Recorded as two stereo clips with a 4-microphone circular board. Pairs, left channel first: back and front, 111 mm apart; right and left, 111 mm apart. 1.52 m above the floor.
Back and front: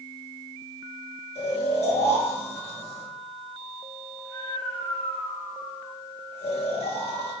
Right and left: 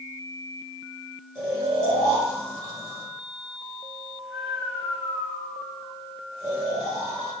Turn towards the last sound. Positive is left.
turn(degrees=155)